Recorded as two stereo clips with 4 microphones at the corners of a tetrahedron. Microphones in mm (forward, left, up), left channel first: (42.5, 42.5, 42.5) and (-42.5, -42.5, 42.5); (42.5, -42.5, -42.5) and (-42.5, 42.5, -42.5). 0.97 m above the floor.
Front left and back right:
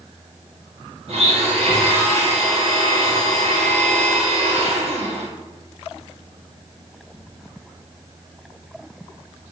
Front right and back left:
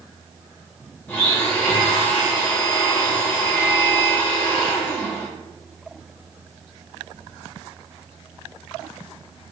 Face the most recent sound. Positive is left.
turn(degrees=-115)